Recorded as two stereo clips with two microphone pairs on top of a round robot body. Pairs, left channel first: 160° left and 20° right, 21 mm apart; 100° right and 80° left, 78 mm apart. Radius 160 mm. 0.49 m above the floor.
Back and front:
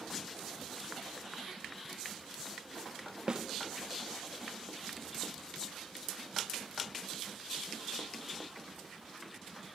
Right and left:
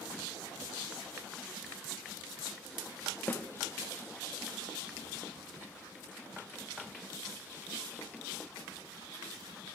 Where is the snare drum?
40° right, 1.2 m.